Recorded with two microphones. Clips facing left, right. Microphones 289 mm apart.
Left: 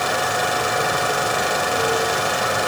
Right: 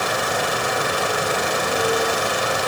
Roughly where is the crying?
No crying in this recording.